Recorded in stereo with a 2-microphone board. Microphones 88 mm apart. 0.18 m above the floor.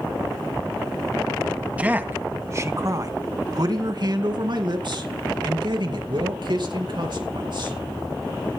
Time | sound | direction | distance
1.8 | a man speaking | 15° right (ahead or behind) | 1.3 m